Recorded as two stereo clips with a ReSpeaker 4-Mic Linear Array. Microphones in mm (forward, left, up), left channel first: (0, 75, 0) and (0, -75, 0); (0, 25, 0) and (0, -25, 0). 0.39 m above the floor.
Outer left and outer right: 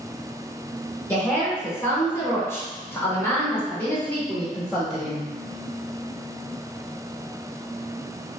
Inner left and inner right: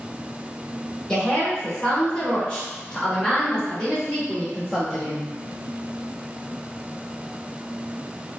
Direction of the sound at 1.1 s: 15° left (ahead or behind).